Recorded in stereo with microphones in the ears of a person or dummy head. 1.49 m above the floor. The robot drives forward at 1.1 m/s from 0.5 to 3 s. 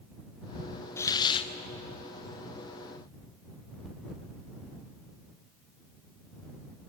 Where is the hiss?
20° left (ahead or behind), 1.1 m; by 1.5 s 40° left (ahead or behind), 0.6 m.